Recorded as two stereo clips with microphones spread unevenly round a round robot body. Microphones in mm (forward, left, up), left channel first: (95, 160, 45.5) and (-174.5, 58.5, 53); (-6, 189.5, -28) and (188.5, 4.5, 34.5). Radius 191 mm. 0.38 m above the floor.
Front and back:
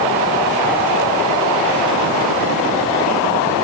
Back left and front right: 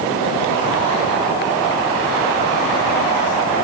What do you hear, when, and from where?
Only background noise.